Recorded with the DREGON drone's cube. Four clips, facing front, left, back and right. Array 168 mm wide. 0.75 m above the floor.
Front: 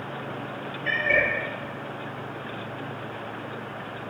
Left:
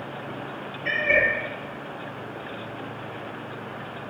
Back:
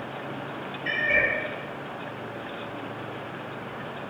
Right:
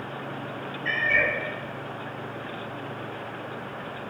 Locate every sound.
0.8 s a cat meowing: 75° left, 1.8 m